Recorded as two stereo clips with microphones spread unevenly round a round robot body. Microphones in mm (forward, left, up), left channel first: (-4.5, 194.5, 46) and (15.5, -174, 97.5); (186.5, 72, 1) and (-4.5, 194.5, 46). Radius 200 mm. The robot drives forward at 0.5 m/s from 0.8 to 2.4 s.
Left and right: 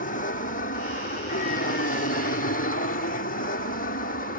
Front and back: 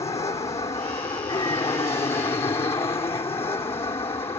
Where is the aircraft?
35° left.